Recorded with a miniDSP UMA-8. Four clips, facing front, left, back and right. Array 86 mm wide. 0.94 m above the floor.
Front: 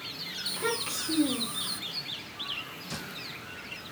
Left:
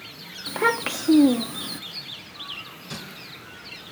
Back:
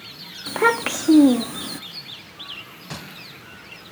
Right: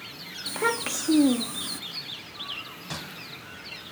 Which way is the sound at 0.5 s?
165° left.